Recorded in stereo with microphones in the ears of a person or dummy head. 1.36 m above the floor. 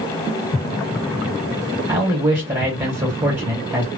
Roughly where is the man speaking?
Centre.